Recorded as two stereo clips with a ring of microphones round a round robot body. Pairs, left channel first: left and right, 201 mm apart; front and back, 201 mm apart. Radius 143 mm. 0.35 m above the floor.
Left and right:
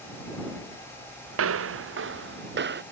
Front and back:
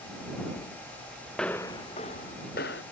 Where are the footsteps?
90° right; by 2.8 s 55° right.